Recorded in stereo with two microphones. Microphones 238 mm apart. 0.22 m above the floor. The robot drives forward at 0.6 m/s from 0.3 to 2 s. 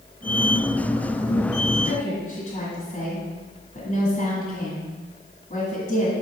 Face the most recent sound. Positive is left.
turn(degrees=30)  # may be behind; listen again after turning